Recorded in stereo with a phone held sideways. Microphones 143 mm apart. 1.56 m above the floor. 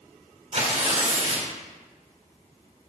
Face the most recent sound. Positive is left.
turn(degrees=-50)  # may be behind; listen again after turning